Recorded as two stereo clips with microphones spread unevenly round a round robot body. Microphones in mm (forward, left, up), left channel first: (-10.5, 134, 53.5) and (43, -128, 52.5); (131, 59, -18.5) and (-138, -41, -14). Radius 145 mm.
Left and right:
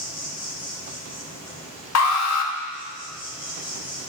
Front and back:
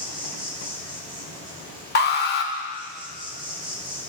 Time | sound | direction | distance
0.0 | an insect | 150° left | 2 m
1.9 | an alarm | 75° left | 1.1 m